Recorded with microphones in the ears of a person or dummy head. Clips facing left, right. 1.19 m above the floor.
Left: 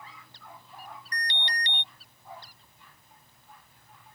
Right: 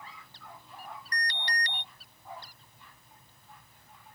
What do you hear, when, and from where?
1.1 s an alarm: 20° left (ahead or behind)